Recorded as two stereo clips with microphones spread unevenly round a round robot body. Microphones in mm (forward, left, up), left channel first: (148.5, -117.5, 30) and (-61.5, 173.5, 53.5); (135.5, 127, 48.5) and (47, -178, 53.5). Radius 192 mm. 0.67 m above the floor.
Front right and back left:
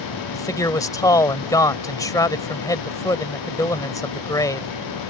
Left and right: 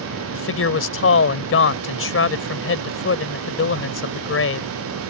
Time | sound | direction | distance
0.3 | a man speaking | 25° left | ?